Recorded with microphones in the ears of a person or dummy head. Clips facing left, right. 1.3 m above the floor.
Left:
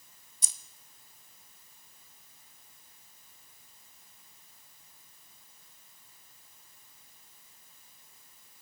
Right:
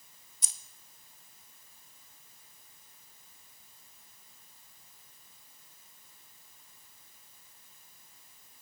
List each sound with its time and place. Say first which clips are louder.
0.4 s keys jangling: left 1 dB; 75° left (ahead or behind), 0.6 m